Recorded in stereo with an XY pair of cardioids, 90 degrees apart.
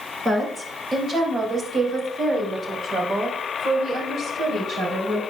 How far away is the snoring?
I don't hear snoring.